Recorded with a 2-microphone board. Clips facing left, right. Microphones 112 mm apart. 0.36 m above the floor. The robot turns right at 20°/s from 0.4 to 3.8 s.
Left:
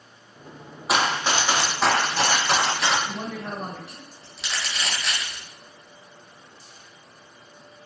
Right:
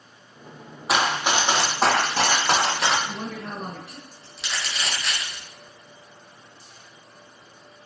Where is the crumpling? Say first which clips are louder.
Even; centre (ahead or behind), 1.2 m.